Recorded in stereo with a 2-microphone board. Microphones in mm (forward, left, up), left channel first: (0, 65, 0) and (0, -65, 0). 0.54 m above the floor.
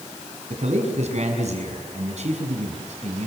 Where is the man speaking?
60° right (ahead or behind), 6 m.